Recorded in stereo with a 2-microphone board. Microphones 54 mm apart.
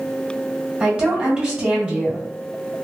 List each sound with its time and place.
0.8 s a woman speaking: 25° right (ahead or behind), 1.8 m